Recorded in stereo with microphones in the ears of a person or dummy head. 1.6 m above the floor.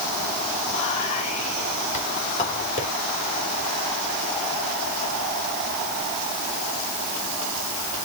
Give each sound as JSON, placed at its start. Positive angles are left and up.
{"t": 0.7, "sound": "whispering", "side_deg": 35, "distance_m": 4.0}